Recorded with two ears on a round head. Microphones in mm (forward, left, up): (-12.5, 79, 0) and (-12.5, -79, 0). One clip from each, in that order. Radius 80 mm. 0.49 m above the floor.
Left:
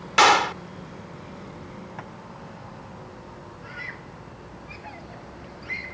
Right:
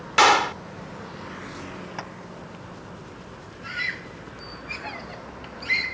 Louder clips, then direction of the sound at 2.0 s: Right 4 dB; 85° right.